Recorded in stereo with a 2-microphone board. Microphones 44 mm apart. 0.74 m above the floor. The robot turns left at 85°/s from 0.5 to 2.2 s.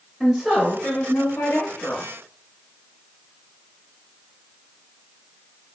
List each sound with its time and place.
0.2 s a woman speaking: 170° left, 1.0 m; by 2.0 s 40° left, 1.0 m